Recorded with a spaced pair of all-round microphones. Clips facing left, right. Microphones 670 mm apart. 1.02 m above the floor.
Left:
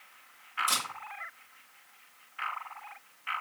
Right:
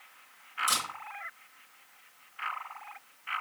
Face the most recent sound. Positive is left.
turn(degrees=-30)  # may be behind; listen again after turning